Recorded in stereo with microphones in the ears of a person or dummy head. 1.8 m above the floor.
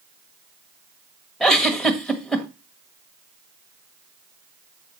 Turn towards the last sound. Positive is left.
turn(degrees=5)  # may be behind; listen again after turning